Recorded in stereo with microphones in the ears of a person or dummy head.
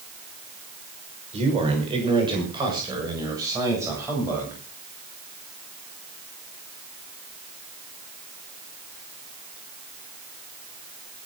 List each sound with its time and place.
1.3 s a man speaking: 30° right (ahead or behind), 6 m; by 4.6 s 10° right (ahead or behind), 9 m